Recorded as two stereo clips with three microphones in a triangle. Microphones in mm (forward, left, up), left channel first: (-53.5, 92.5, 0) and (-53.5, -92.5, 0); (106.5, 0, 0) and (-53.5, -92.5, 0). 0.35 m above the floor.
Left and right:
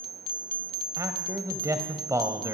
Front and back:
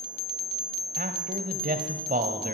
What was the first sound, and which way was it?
A man speaking, 160° right.